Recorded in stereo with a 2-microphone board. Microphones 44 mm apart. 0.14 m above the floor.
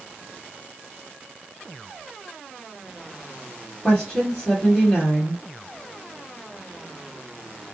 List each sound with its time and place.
3.8 s a woman speaking: 20° left (ahead or behind), 1.7 m